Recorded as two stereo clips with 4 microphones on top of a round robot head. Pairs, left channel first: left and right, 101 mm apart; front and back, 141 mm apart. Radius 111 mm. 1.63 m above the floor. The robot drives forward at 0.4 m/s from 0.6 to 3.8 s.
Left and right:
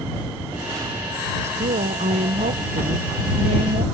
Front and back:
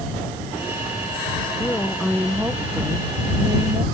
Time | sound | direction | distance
1.4 | a woman speaking | 85° right | ?